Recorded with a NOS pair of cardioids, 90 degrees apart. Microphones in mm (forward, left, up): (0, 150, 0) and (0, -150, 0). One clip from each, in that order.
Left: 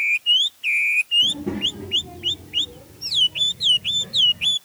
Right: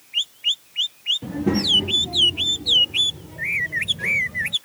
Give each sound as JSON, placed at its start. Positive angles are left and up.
{"t": 1.2, "sound": "a child speaking", "azimuth_deg": -35}